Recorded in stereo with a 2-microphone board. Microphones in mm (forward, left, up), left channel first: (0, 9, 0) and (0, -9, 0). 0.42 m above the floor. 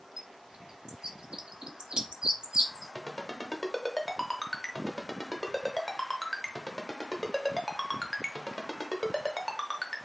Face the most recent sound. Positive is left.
turn(degrees=20)  # may be behind; listen again after turning